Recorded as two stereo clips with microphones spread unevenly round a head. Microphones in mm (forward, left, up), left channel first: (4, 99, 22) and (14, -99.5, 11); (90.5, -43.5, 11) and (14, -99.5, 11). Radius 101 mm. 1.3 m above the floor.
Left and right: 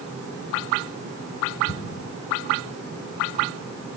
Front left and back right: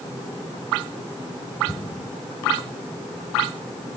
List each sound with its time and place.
1.7 s an explosion: 105° left, 3.5 m